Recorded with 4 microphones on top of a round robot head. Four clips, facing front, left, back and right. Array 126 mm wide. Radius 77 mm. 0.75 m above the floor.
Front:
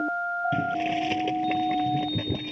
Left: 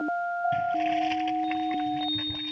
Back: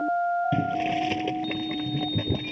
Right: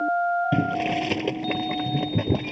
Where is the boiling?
95° right.